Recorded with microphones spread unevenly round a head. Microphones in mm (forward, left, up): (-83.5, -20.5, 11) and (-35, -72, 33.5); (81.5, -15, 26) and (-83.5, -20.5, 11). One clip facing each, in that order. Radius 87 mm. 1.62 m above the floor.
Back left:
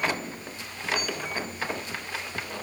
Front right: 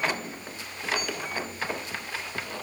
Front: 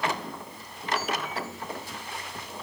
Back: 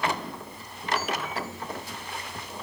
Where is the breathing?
I don't hear breathing.